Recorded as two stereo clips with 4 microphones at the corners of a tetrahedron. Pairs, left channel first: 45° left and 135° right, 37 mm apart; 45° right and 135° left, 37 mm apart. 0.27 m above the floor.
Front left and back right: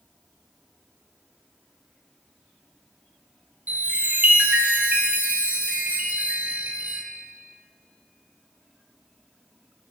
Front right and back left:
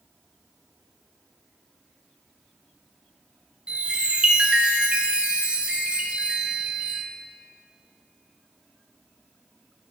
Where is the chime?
165° right, 1.7 m.